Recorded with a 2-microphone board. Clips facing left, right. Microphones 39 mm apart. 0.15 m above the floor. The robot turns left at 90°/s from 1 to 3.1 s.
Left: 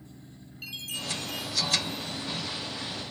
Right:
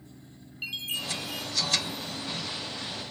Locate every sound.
0.6 s a chime: 150° right, 2.5 m; by 2.3 s 100° left, 2.5 m